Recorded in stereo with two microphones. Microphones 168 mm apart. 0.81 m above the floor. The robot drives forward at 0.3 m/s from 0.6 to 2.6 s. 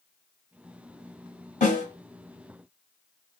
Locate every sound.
1.6 s a snare drum: 45° left (ahead or behind), 1.4 m; by 1.9 s 50° left (ahead or behind), 1.4 m